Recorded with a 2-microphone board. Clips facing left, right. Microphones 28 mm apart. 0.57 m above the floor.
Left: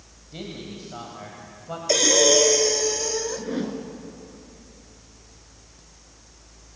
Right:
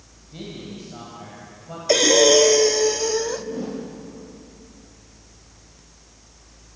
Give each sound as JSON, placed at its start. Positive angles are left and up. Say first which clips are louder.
{"t": 0.3, "sound": "a man speaking", "louder": "even", "side_deg": 20, "distance_m": 3.0}
{"t": 1.9, "sound": "breathing", "louder": "right 4 dB", "side_deg": -15, "distance_m": 0.8}
{"t": 3.4, "sound": "a whoosh", "louder": "left 1 dB", "side_deg": 75, "distance_m": 3.0}